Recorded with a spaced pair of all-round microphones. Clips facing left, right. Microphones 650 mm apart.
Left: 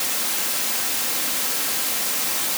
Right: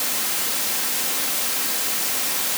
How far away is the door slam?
No door slam in this recording.